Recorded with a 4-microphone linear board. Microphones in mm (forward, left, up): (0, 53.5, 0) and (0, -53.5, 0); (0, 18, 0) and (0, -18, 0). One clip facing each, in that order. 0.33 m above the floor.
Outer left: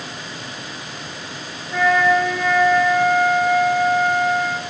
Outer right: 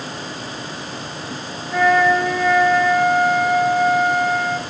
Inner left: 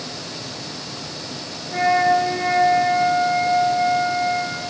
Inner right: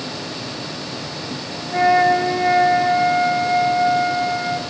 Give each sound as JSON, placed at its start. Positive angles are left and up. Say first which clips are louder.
{"t": 1.7, "sound": "a flute", "louder": "outer right 1 dB, inner right 2 dB", "side_deg": -5, "distance_m": 3.0}